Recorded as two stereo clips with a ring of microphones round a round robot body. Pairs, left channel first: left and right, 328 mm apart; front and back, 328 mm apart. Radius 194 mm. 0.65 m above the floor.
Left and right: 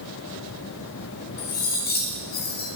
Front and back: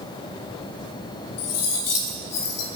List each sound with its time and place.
1.4 s cutlery clinking: 25° left, 1.9 m